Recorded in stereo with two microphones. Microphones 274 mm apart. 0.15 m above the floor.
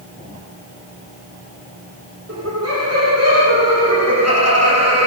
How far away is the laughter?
About 7 m.